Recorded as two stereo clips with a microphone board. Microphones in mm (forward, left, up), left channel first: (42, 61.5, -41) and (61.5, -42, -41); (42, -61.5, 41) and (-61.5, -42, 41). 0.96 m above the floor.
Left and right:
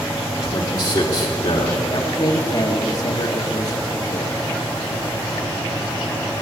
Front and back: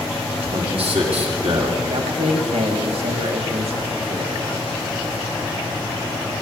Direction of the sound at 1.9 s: 150° left.